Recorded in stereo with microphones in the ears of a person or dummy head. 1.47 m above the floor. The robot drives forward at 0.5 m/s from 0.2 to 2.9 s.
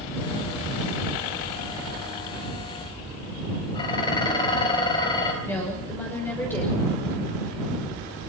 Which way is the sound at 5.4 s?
15° left (ahead or behind).